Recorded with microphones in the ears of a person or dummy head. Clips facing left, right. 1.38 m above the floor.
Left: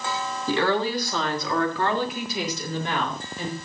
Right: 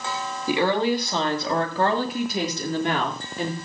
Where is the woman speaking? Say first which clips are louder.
Right 2 dB; 15° right (ahead or behind), 2.5 m; by 3.5 s 55° right (ahead or behind), 4 m.